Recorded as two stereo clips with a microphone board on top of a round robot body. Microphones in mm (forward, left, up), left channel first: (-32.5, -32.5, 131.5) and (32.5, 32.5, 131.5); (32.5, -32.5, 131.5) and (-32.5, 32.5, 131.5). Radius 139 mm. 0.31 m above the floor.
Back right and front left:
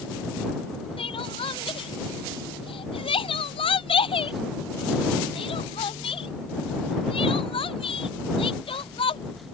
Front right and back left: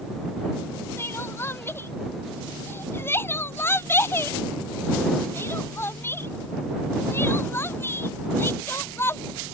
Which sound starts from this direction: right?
Crying, at 1.0 s.